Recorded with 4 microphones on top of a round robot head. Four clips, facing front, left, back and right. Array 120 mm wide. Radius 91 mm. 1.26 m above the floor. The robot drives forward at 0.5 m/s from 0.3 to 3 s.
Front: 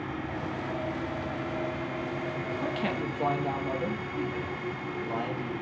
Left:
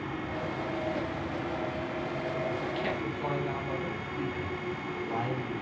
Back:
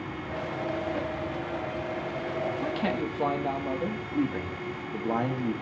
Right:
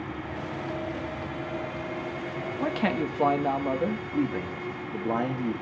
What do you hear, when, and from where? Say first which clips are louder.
2.6 s a man speaking: right 5 dB, back 2 dB; 95° right, 2 m; by 4.0 s 100° right, 2 m
4.1 s a man speaking: right 6 dB, back 3 dB; 125° right, 3 m